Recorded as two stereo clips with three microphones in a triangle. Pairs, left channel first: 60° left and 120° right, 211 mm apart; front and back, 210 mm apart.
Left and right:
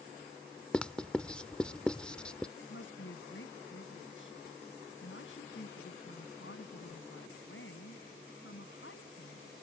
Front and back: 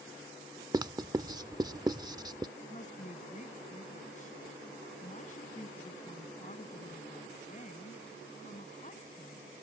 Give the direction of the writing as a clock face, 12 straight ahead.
7 o'clock.